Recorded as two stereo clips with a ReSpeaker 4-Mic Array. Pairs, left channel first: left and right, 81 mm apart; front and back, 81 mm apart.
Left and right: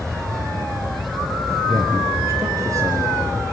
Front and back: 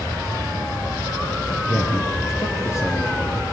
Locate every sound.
1.7 s a man speaking: 50° right, 3 m